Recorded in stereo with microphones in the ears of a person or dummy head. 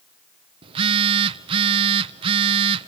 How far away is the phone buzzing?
About 0.8 m.